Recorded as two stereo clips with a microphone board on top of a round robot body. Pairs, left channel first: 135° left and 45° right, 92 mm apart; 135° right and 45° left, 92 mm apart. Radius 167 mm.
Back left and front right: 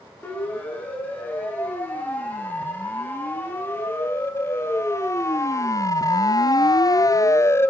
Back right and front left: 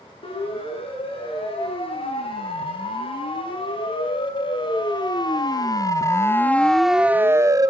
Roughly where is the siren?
Behind right.